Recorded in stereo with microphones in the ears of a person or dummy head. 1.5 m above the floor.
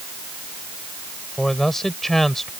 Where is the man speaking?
5° left (ahead or behind).